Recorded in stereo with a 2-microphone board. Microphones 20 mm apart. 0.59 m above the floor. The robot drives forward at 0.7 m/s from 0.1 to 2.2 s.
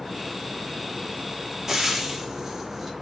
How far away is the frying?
About 1.2 m.